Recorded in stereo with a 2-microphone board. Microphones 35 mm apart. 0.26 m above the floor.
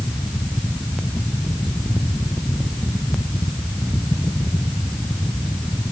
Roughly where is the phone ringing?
I don't hear a phone ringing.